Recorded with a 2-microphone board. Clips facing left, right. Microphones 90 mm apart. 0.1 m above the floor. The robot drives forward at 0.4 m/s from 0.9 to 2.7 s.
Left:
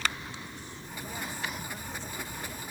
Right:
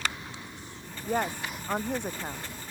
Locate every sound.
1.1 s a woman speaking: 60° right (ahead or behind); by 2.5 s 65° right (ahead or behind)